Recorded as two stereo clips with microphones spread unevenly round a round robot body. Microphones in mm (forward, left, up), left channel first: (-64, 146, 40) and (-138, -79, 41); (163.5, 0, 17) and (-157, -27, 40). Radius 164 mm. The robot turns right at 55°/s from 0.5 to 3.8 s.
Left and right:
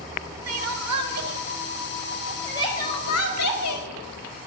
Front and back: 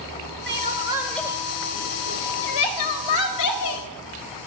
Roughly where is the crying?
Behind right.